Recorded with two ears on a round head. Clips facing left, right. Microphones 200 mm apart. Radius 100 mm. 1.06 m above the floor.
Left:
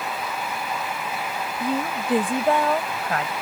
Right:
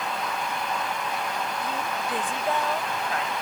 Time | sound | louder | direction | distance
1.6 | a woman speaking | left 5 dB | 45° left (ahead or behind) | ?